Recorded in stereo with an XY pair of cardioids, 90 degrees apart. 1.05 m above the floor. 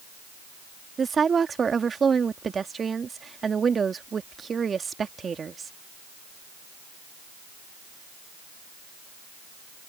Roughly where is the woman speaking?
Ahead right.